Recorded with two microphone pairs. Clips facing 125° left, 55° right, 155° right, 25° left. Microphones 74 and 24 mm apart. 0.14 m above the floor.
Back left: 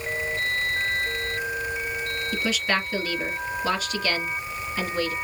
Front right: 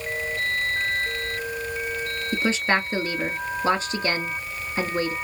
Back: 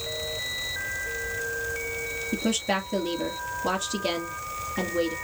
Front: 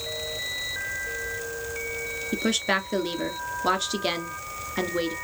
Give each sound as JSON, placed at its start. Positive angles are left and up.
{"t": 2.3, "sound": "a woman speaking", "azimuth_deg": -5, "distance_m": 2.0}